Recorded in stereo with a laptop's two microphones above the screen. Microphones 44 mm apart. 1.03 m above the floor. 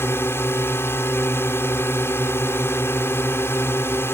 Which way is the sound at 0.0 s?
65° left (ahead or behind).